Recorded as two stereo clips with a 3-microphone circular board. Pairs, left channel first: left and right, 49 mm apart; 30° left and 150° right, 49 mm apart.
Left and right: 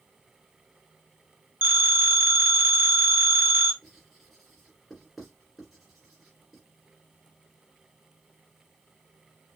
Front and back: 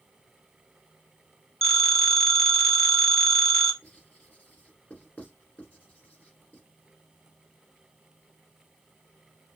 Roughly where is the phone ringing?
Ahead right.